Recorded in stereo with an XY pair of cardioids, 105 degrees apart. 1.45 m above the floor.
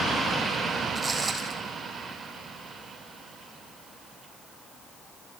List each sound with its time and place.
0.9 s footsteps: 15° right, 5 m